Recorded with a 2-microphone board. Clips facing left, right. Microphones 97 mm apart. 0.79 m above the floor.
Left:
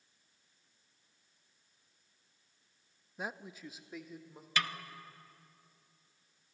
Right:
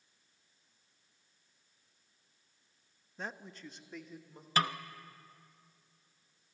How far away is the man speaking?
About 0.5 m.